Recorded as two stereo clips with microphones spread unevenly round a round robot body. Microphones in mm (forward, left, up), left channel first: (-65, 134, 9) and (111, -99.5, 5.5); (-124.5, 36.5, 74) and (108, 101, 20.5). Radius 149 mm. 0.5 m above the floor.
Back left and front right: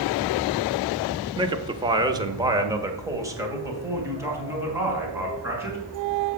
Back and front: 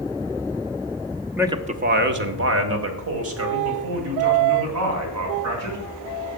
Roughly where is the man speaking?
Ahead.